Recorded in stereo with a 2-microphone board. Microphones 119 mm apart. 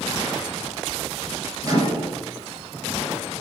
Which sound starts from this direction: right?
A microwave, at 1.6 s.